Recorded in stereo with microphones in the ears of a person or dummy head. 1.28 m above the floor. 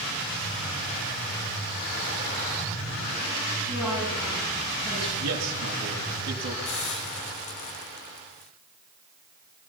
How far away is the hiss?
About 0.9 m.